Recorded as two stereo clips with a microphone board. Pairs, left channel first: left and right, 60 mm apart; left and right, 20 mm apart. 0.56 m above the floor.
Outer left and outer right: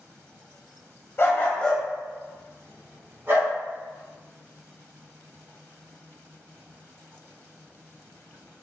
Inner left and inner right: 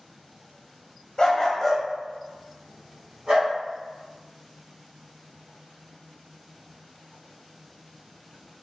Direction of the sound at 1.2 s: 40° left (ahead or behind).